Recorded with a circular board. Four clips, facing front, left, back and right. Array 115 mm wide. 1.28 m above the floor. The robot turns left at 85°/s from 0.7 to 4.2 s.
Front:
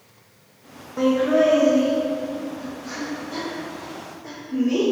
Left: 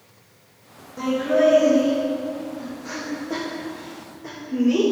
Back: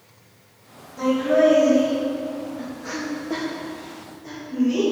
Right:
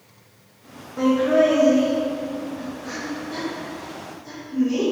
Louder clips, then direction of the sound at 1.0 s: Right 2 dB, even; 15° right.